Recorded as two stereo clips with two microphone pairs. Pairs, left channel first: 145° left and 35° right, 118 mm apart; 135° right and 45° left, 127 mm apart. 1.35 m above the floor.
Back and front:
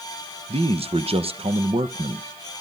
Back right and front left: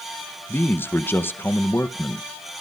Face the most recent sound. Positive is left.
turn(degrees=-60)